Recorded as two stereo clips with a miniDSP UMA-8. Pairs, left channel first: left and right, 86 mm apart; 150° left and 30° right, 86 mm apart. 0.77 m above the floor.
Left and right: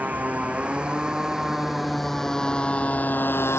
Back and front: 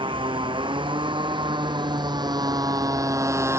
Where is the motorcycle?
20° right; by 3.6 s 30° left.